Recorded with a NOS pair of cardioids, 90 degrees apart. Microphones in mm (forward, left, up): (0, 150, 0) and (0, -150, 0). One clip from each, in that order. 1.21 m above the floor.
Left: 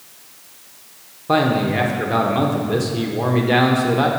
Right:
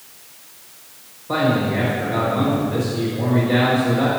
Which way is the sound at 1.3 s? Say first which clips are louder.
Left 2 dB; 70° left.